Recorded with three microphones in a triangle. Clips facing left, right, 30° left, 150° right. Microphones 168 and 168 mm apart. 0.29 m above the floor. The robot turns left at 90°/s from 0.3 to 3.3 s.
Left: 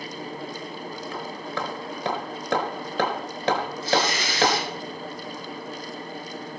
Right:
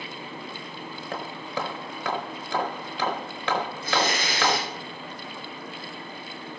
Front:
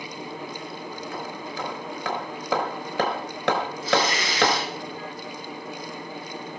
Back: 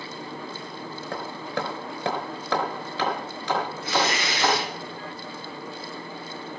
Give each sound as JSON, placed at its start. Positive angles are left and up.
{"t": 1.1, "sound": "hammering", "azimuth_deg": -120, "distance_m": 4.0}
{"t": 3.8, "sound": "tearing paper", "azimuth_deg": -125, "distance_m": 6.0}